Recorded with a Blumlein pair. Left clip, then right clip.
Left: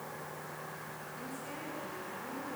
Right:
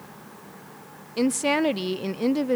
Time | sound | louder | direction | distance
1.2 | a woman speaking | right 24 dB | 45° right | 0.6 m